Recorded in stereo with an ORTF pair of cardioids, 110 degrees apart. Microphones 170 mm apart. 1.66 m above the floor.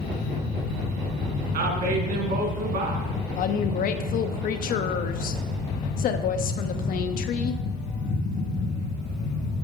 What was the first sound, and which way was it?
A fan, 60° left.